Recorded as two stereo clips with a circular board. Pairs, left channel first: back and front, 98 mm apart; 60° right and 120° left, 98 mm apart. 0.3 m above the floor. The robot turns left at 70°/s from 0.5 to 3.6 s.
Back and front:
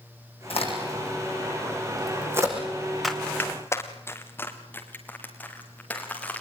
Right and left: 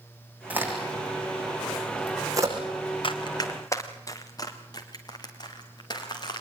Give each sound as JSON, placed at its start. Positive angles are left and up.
{"t": 0.5, "sound": "a crack", "azimuth_deg": -165, "distance_m": 6.5}
{"t": 3.0, "sound": "running footsteps", "azimuth_deg": -90, "distance_m": 2.0}